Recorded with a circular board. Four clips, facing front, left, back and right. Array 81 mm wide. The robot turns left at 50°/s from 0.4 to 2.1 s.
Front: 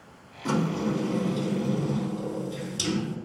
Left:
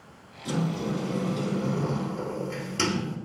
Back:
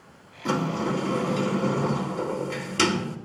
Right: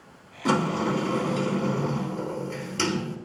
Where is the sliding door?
100° right, 3.5 m; by 3.2 s straight behind, 3.5 m.